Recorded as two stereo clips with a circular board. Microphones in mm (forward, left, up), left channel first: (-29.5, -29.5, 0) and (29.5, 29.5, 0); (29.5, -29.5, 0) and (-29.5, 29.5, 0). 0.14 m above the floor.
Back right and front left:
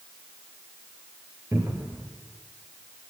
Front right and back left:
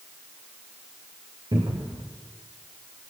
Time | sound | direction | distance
1.5 | a cupboard door | 105° left | 6 m